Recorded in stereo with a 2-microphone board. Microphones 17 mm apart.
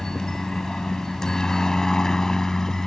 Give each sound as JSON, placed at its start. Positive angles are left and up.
{"t": 0.0, "sound": "a helicopter", "side_deg": 30}